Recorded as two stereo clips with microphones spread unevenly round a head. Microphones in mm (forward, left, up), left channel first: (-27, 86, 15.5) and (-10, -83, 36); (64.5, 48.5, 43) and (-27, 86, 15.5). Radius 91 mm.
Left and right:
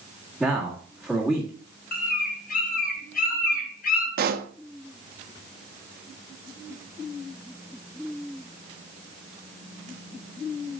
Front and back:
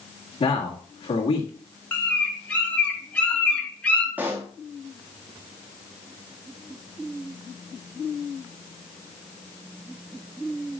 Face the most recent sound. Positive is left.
turn(degrees=-115)